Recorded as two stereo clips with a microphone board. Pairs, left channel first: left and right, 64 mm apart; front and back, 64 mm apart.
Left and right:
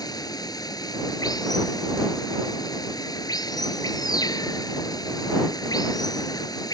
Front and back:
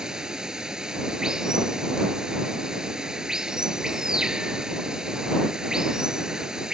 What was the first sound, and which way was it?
Running water, 100° left.